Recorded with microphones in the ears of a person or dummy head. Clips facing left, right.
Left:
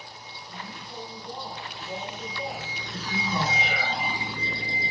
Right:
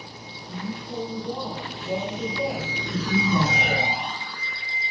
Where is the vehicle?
50° right (ahead or behind); by 4.9 s 30° left (ahead or behind).